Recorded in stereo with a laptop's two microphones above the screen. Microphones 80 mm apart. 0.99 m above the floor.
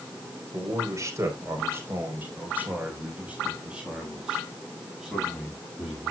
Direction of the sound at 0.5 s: 45° right (ahead or behind).